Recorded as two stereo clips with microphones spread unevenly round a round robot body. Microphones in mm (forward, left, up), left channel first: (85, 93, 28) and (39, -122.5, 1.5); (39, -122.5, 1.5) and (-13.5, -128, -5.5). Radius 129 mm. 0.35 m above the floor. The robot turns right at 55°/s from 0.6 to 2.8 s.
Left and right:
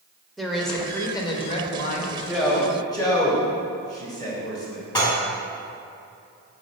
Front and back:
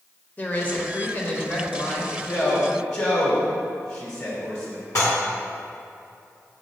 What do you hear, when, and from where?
0.4 s a woman speaking: 25° right, 0.9 m; by 2.2 s 60° left, 0.9 m
2.3 s a man speaking: 25° right, 1.9 m; by 4.8 s 5° left, 1.9 m
5.0 s dishes clattering: 5° left, 1.8 m